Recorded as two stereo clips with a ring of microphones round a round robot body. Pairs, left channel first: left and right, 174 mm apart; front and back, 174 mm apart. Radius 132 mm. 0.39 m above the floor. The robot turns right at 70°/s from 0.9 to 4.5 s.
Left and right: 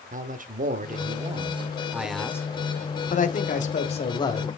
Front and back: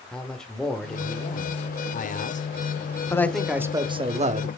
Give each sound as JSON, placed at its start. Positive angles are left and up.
{"t": 0.1, "sound": "a man speaking", "azimuth_deg": -85, "distance_m": 1.0}